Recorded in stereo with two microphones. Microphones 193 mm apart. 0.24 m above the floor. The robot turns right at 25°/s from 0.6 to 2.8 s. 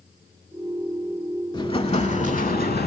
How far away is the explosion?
About 0.5 m.